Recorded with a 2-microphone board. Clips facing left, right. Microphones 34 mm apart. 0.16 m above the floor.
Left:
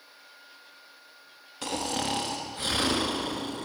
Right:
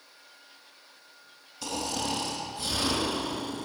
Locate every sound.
1.6 s snoring: 50° left (ahead or behind), 1.2 m